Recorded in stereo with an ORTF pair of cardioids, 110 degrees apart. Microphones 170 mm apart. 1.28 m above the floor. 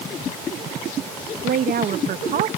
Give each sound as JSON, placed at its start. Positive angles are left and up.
{"t": 1.4, "sound": "a woman speaking", "azimuth_deg": -55}